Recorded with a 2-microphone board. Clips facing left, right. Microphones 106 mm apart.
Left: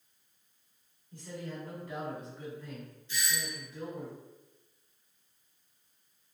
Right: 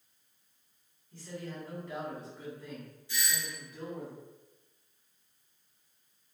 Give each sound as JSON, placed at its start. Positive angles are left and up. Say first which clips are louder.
{"t": 1.1, "sound": "a man speaking", "louder": "even", "side_deg": 20, "distance_m": 1.9}
{"t": 3.1, "sound": "a doorbell", "louder": "left 1 dB", "side_deg": -15, "distance_m": 2.0}